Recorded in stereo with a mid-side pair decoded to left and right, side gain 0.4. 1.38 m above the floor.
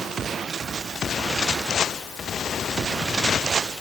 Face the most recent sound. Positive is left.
No sound to turn to.